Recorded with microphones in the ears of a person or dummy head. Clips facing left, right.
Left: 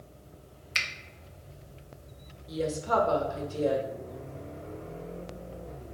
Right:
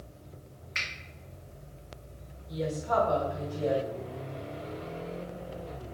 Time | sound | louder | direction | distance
0.8 | a finger snap | left 2 dB | 55° left (ahead or behind) | 0.7 m
2.5 | a woman speaking | left 1 dB | 60° left (ahead or behind) | 1.2 m